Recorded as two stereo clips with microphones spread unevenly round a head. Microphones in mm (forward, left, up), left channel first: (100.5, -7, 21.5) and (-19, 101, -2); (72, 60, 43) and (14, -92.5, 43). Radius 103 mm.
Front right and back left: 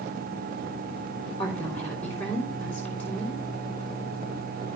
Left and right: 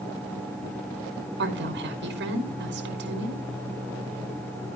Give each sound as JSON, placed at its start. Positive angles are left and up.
{"t": 1.4, "sound": "a woman speaking", "azimuth_deg": -125, "distance_m": 3.0}